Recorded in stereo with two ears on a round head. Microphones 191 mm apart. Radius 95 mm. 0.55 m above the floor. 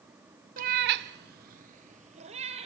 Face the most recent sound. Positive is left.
turn(degrees=-30)  # may be behind; listen again after turning